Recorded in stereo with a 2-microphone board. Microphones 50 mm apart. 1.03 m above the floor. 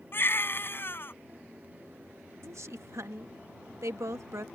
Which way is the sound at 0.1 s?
50° left (ahead or behind).